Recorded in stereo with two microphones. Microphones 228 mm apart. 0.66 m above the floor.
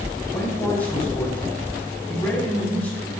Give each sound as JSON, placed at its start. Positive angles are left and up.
{"t": 0.3, "sound": "a man speaking", "side_deg": 5, "distance_m": 6.0}